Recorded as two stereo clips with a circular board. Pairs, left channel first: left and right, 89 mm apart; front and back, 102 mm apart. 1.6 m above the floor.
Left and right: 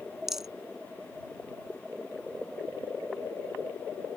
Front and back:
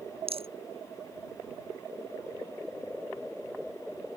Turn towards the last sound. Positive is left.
turn(degrees=-175)